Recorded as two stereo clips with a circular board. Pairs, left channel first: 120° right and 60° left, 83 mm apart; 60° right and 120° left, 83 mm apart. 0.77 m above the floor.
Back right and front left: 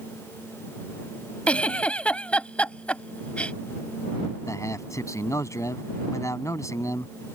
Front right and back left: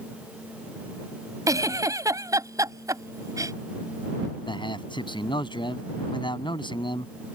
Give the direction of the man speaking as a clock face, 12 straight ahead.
2 o'clock.